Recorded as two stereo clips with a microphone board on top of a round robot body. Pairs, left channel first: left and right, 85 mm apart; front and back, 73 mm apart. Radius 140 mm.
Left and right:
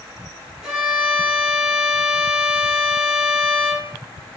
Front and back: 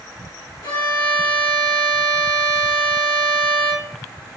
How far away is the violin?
About 2.5 m.